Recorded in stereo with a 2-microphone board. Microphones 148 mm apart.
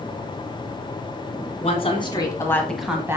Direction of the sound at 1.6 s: 45° left (ahead or behind).